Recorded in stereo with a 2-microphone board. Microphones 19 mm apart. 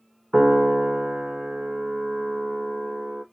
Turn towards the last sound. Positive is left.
turn(degrees=-75)  # may be behind; listen again after turning